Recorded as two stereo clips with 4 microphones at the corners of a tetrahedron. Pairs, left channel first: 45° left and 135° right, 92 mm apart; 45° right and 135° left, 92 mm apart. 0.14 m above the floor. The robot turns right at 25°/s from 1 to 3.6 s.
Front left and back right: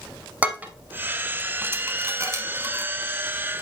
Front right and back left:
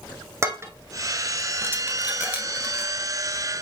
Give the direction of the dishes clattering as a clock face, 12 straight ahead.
7 o'clock.